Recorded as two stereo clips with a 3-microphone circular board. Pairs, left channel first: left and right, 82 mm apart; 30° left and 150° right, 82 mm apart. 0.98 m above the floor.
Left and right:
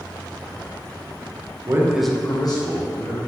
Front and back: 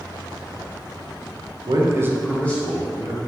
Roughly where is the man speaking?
Behind right.